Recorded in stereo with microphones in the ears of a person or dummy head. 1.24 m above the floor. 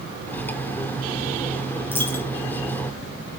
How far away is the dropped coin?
About 5 m.